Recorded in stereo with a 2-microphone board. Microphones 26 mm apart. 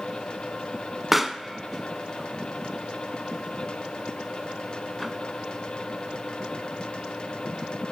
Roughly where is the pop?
Centre.